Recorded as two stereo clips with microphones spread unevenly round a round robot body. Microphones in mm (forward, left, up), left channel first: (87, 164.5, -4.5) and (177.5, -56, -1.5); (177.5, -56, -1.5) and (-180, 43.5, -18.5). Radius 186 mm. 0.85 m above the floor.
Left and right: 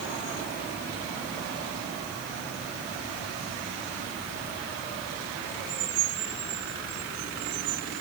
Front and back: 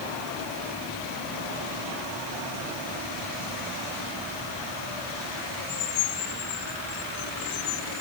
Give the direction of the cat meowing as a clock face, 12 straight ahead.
I don't hear a cat meowing.